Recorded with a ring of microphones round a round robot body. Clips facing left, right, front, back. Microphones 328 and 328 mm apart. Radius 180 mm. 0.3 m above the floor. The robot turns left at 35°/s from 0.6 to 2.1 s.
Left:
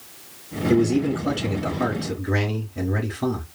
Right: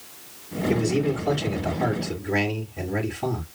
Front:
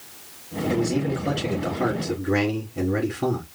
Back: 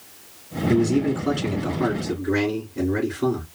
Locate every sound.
0.7 s a man speaking: 135° left, 3.5 m; by 3.5 s 85° left, 3.5 m